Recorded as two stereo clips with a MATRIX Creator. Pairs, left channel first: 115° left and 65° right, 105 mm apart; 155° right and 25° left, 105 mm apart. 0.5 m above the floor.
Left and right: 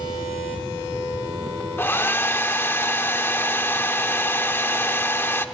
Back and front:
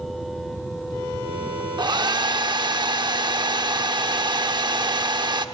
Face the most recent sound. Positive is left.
turn(degrees=50)